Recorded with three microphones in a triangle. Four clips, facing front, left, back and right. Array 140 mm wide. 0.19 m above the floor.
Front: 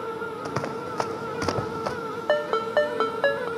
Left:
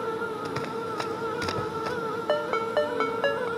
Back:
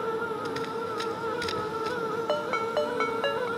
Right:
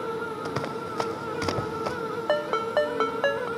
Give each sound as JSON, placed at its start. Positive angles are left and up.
{"t": 0.5, "sound": "running footsteps", "azimuth_deg": -30}
{"t": 2.3, "sound": "a ringtone", "azimuth_deg": -25}